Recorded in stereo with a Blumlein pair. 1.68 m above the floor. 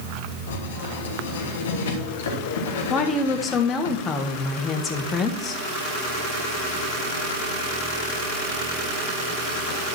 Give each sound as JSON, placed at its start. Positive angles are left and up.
{"t": 0.5, "sound": "writing", "azimuth_deg": 60, "distance_m": 3.0}
{"t": 2.9, "sound": "a woman speaking", "azimuth_deg": 20, "distance_m": 1.5}